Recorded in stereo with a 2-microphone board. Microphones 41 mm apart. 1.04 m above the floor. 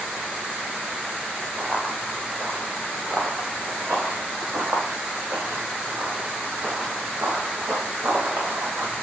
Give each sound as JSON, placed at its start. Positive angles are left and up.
{"t": 1.6, "sound": "running footsteps", "side_deg": -40, "distance_m": 3.5}